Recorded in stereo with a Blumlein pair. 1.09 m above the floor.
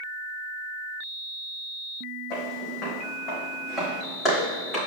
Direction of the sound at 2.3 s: 35° left.